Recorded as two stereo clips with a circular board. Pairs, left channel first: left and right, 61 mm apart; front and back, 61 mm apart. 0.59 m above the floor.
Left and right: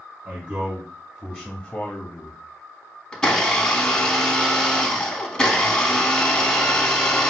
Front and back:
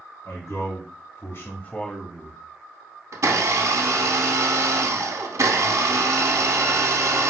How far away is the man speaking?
About 2 m.